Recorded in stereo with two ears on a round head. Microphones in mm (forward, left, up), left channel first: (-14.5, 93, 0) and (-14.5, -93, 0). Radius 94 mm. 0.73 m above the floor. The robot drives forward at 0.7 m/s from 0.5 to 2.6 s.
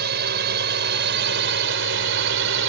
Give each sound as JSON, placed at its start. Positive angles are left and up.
{"t": 0.0, "sound": "a drone", "side_deg": -50}